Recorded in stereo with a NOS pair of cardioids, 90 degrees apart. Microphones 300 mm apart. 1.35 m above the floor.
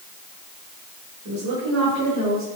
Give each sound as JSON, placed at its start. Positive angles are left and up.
{"t": 1.2, "sound": "a woman speaking", "azimuth_deg": -60, "distance_m": 4.5}